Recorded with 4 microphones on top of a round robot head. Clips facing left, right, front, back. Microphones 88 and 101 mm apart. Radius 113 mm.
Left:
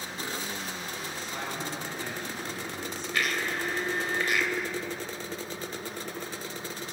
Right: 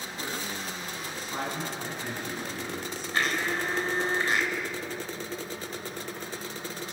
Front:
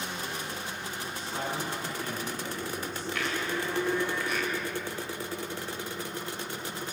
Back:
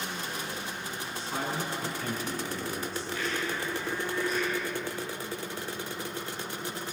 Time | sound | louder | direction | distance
1.1 | a man speaking | right 4 dB, back 1 dB | 160° right | 8 m
3.1 | a blender | right 2 dB, front 1 dB | 30° right | 2.5 m